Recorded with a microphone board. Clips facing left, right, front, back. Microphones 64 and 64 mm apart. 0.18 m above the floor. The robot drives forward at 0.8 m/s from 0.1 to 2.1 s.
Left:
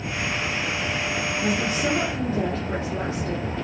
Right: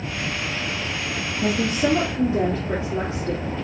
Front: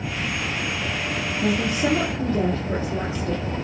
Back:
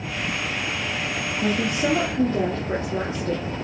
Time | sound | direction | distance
1.4 | a woman speaking | 155° right | 2 m